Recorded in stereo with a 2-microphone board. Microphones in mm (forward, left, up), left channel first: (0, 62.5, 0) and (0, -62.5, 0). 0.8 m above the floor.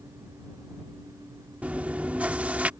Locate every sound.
1.6 s chewing: 10° right (ahead or behind)